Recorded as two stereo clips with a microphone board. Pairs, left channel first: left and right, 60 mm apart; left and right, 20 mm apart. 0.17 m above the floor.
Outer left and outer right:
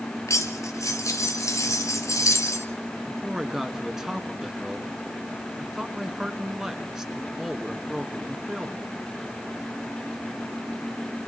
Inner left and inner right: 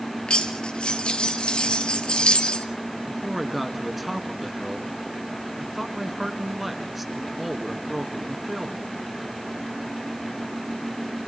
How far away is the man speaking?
About 2 m.